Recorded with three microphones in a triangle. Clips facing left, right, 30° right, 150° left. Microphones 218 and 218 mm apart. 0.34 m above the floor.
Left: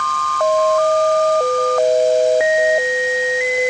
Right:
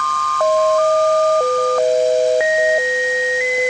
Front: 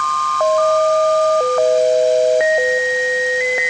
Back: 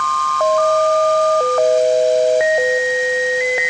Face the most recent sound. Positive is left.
No sound to turn to.